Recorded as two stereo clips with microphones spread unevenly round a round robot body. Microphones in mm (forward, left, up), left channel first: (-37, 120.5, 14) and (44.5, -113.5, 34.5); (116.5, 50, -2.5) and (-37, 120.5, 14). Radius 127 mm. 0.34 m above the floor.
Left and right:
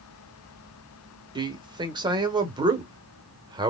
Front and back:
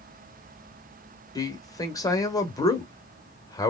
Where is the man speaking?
10° right, 1.0 m.